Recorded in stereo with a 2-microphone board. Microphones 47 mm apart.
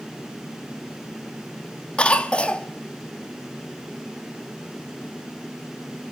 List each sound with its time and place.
2.0 s a cough: 25° left (ahead or behind), 0.8 m